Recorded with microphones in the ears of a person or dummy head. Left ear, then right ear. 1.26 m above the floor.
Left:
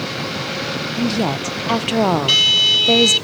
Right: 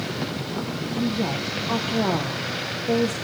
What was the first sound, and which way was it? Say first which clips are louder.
A woman speaking: left 4 dB; 75° left (ahead or behind).